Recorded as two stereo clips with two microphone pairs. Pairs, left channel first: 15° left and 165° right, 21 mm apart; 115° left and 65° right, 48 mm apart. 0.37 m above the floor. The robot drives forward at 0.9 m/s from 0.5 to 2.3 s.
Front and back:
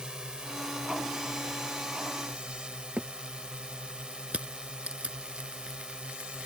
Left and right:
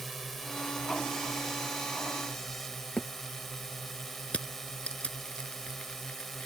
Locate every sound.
0.0 s a drone: 155° right; by 6.5 s 160° right
3.0 s a thud: straight behind
4.3 s crushing: straight behind